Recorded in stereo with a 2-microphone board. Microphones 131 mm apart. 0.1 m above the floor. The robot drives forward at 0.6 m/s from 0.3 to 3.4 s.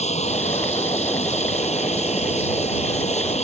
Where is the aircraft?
60° left (ahead or behind).